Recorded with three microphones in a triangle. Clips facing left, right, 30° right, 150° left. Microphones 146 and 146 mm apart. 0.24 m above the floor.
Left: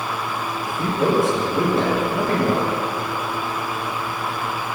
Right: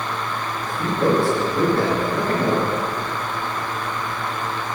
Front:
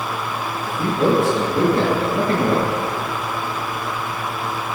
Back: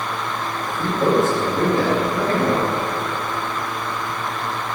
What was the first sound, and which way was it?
A man speaking, 25° left.